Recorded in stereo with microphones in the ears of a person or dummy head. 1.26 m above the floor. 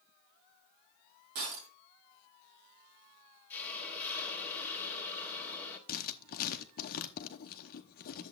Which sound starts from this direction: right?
Breaking glass, at 1.4 s.